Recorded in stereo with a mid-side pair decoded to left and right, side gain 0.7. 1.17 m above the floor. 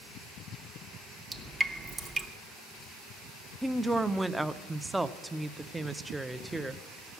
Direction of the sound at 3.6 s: 5° right.